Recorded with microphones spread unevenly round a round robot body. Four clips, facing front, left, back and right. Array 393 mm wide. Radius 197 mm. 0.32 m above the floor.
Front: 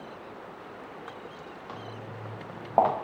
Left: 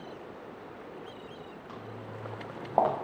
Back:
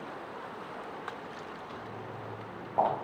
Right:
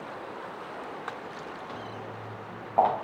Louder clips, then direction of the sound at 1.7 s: Right 4 dB, front 1 dB; 5° right.